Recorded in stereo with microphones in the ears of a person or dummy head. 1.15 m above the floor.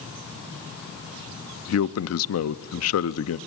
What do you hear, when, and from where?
1.7 s a man speaking: 75° left (ahead or behind), 0.7 m